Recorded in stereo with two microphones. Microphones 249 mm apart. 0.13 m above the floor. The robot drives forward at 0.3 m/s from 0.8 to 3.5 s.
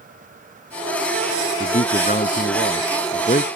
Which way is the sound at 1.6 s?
35° left (ahead or behind).